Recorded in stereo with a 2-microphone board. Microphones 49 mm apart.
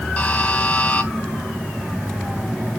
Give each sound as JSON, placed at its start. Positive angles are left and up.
{"t": 0.2, "sound": "a buzzer", "side_deg": 30, "distance_m": 2.0}